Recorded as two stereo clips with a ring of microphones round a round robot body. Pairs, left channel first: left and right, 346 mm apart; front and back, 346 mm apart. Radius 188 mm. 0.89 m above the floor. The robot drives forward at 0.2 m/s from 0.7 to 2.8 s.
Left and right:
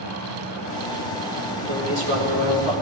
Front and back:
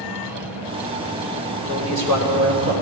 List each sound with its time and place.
1.7 s a man speaking: 100° right, 3 m; by 2.7 s 105° right, 3 m